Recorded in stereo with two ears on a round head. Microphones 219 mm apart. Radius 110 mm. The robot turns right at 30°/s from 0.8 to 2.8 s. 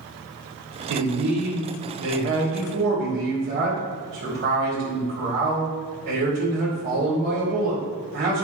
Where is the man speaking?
95° right, 2.5 m; by 8.4 s 40° right, 2.5 m.